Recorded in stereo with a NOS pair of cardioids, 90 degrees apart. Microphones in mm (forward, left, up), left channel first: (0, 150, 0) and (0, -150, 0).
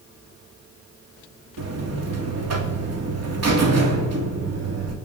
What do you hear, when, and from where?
1.6 s a buzzer: 55° right, 2.5 m